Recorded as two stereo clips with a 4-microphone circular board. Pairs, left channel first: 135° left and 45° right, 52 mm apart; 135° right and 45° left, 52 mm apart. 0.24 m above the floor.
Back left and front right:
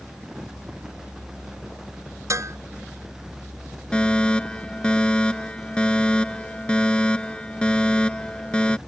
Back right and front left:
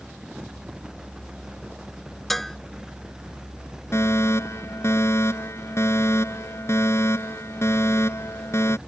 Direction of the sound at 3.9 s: 155° right.